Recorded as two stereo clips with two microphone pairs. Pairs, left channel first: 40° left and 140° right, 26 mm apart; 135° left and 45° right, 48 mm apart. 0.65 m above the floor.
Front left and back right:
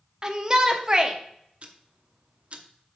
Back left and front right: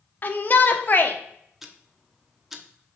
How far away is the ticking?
About 0.8 m.